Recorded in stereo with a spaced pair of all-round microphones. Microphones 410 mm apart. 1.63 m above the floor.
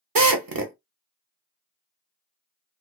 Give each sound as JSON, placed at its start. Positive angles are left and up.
{"t": 0.1, "sound": "a drill", "side_deg": -55, "distance_m": 0.7}